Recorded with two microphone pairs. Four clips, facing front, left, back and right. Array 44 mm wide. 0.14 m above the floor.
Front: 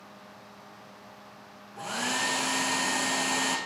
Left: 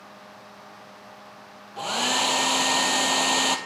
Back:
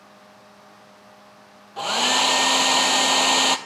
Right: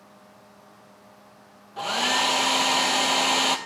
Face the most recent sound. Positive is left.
turn(degrees=-170)